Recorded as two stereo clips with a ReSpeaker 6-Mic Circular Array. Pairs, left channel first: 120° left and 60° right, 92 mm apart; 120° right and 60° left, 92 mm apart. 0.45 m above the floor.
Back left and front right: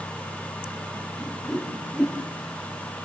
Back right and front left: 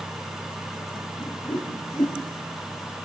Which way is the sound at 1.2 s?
155° right.